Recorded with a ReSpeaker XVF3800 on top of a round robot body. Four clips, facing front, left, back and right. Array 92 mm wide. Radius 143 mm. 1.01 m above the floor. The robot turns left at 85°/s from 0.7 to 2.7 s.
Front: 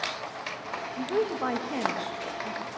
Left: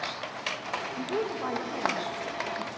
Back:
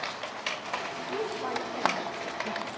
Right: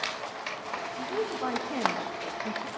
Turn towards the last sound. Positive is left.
turn(degrees=-115)